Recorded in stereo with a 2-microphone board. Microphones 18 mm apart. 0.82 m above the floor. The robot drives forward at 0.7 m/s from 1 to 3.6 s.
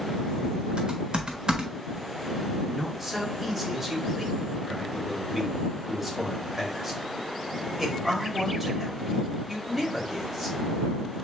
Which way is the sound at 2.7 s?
20° right (ahead or behind).